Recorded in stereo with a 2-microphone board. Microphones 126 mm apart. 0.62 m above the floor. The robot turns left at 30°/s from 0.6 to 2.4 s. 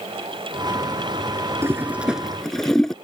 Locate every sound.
1.6 s a toilet flushing: 20° right (ahead or behind); by 3.0 s 5° left (ahead or behind)